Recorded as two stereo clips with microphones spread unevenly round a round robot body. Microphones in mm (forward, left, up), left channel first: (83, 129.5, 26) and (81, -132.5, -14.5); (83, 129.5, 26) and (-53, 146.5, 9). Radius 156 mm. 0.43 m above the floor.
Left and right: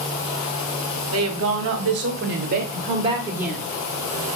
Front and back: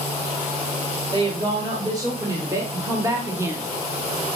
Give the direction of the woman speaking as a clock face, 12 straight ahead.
4 o'clock.